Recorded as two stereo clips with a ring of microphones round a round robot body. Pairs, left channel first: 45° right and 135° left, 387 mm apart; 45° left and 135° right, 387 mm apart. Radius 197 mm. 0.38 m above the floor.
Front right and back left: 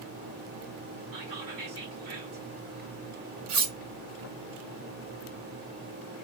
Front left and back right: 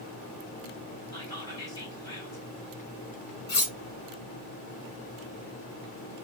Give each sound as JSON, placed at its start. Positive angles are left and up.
{"t": 1.1, "sound": "whispering", "azimuth_deg": 120, "distance_m": 2.0}
{"t": 3.5, "sound": "cutlery clinking", "azimuth_deg": 110, "distance_m": 1.6}